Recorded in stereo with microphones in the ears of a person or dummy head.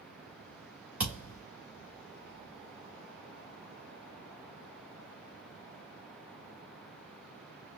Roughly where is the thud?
Centre.